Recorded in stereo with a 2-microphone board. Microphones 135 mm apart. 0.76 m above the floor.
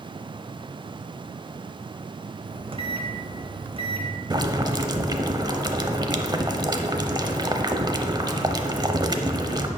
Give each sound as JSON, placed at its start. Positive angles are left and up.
{"t": 2.5, "sound": "a microwave", "side_deg": -40, "distance_m": 0.8}
{"t": 4.3, "sound": "boiling", "side_deg": -30, "distance_m": 0.6}